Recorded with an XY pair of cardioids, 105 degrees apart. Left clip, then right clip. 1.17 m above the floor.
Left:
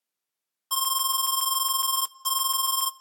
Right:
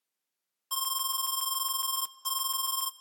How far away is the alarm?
About 0.9 m.